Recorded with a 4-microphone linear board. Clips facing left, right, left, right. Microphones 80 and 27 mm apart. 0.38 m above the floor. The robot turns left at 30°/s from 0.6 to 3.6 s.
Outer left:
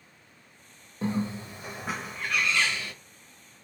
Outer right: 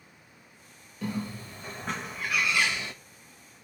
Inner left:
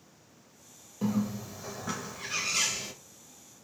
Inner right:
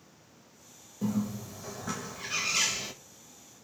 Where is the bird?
35° left, 0.6 m; by 2.9 s 25° right, 0.6 m.